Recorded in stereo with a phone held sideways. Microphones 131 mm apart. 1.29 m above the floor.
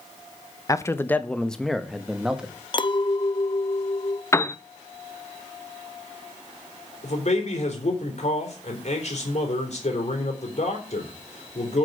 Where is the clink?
40° left (ahead or behind), 0.6 m.